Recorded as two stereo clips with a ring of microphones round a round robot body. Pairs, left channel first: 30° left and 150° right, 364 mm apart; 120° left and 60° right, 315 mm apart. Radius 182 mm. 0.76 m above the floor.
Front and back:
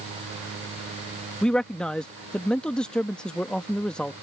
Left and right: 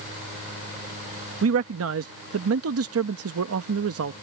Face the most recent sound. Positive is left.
turn(degrees=-55)